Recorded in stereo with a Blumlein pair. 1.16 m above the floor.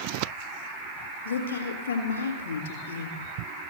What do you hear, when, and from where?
1.2 s a woman speaking: 70° left, 3.5 m